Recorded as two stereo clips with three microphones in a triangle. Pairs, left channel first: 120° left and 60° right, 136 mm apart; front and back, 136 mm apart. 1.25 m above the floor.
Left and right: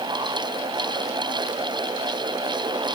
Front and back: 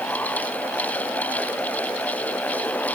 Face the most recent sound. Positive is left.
No sound to turn to.